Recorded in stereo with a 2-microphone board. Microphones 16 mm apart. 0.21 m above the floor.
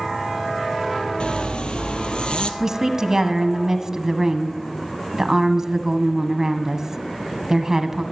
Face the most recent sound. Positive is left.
turn(degrees=-35)  # may be behind; listen again after turning